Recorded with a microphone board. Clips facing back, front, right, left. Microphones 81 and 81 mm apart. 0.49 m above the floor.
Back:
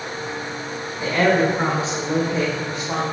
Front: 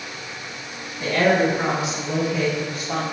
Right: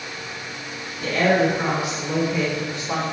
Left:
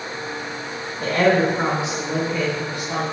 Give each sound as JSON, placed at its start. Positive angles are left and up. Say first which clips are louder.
{"t": 1.0, "sound": "a woman speaking", "louder": "back 1 dB, left 1 dB", "azimuth_deg": 110, "distance_m": 2.0}